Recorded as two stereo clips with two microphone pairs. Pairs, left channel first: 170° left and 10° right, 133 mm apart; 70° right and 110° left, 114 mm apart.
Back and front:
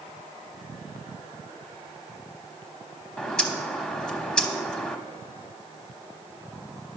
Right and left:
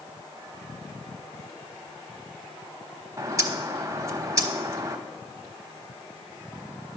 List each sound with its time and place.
3.2 s a bird: 95° left, 1.0 m